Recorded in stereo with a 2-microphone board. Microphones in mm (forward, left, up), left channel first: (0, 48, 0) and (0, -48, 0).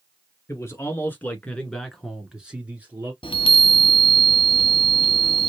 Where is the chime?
60° left (ahead or behind), 0.7 m.